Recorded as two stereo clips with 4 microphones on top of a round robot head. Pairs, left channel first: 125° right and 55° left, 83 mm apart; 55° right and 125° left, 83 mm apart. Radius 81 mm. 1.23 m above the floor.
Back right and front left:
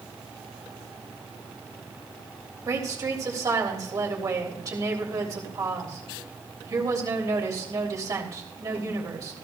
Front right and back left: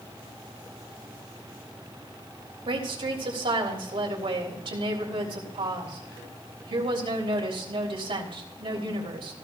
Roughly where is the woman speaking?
Left.